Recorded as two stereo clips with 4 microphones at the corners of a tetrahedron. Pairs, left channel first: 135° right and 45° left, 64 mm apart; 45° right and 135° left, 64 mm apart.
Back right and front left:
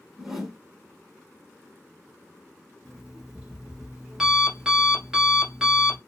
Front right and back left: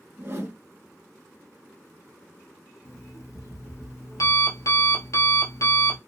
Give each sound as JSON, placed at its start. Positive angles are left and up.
{"t": 0.2, "sound": "a whoosh", "azimuth_deg": 125, "distance_m": 0.7}
{"t": 2.9, "sound": "an alarm clock", "azimuth_deg": -35, "distance_m": 1.0}